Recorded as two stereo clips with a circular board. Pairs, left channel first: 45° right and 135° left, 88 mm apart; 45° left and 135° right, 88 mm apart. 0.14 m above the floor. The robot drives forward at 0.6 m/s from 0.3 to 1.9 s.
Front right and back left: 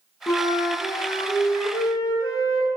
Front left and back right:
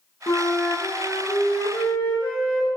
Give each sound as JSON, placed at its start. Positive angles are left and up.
{"t": 0.3, "sound": "a flute", "azimuth_deg": 0, "distance_m": 5.0}